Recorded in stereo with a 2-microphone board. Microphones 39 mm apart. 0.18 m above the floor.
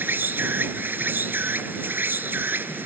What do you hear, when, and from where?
0.0 s an insect: 55° right (ahead or behind)